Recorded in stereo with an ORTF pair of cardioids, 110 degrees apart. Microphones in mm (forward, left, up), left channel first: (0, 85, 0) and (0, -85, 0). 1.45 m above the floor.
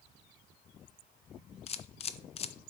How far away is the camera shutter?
About 0.6 m.